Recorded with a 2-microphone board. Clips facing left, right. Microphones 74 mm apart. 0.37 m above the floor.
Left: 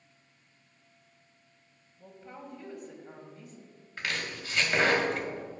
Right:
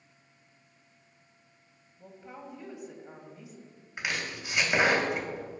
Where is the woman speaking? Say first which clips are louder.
Right 1 dB; 5° right (ahead or behind), 2.0 m.